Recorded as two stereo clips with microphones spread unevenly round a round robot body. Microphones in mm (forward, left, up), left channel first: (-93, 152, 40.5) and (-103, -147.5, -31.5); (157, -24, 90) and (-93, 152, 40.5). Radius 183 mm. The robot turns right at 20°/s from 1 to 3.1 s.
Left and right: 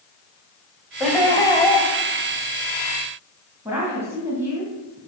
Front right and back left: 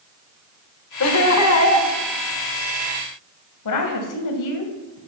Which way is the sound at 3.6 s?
15° right.